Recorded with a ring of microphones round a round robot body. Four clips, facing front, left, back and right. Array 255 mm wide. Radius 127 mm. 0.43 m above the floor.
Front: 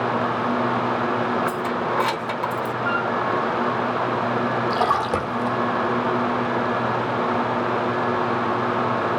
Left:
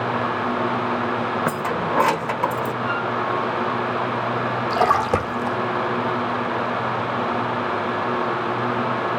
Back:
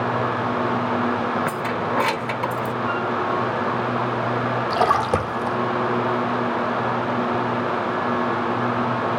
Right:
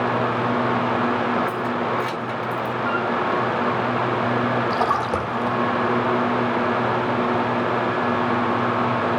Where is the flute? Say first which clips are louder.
Right 1 dB, front 2 dB; 140° left, 6 m.